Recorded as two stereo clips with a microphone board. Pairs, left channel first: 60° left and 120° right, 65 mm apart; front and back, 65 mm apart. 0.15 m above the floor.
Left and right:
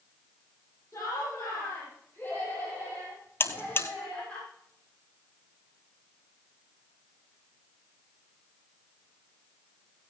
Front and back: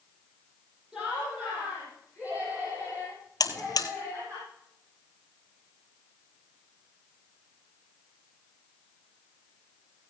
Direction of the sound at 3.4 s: 5° left.